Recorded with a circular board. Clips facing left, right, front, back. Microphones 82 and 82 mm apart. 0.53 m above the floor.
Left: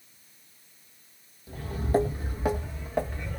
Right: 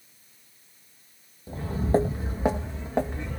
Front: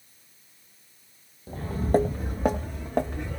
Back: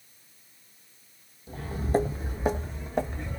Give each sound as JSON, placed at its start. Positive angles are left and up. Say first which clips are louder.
{"t": 1.5, "sound": "footsteps", "louder": "right 3 dB, front 3 dB", "azimuth_deg": -40, "distance_m": 0.8}